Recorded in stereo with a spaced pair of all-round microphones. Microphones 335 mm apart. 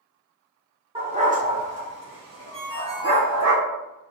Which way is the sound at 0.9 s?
15° right (ahead or behind).